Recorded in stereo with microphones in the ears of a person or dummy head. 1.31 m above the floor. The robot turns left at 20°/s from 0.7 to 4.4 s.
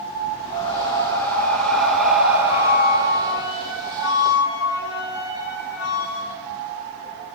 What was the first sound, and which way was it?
Breathing, 20° left.